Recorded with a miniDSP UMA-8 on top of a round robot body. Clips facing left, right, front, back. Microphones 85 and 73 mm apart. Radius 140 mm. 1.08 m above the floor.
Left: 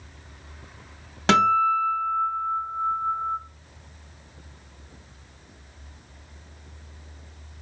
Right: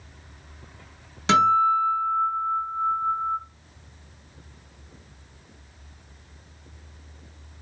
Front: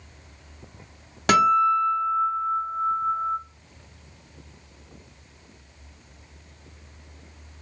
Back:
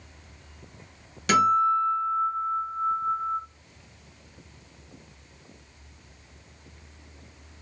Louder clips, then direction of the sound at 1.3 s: Right 1 dB, front 2 dB; 50° left.